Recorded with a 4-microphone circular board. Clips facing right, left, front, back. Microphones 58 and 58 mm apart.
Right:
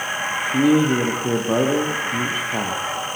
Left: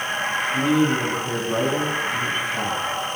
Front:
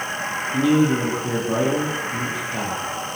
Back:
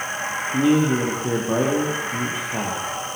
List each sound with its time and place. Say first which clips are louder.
0.5 s a man speaking: right 4 dB, even; 105° right, 5.5 m